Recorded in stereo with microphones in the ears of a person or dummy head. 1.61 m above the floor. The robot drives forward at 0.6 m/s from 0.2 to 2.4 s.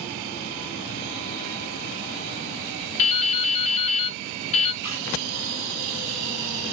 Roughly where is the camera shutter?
Left.